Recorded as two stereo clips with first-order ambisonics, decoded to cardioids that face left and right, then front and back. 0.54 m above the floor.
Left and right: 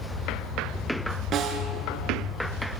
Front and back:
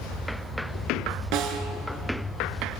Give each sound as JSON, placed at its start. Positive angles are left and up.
{"t": 1.3, "sound": "a snare drum", "azimuth_deg": -150, "distance_m": 2.5}